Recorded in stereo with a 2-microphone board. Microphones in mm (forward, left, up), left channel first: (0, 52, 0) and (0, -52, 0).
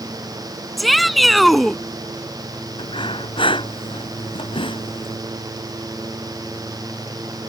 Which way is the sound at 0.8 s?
Centre (ahead or behind).